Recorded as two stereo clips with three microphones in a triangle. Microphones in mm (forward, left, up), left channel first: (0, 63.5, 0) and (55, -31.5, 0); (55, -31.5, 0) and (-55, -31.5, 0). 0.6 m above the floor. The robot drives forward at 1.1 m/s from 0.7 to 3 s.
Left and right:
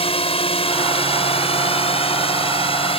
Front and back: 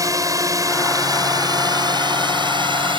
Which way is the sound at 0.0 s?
125° left.